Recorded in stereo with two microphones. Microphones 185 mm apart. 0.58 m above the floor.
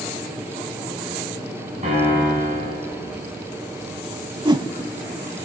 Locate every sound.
1.8 s a piano: 40° right (ahead or behind), 6 m
4.5 s a whoosh: 25° right (ahead or behind), 0.5 m